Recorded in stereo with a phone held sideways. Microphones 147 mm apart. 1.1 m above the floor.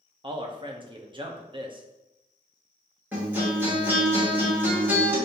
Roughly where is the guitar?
Centre.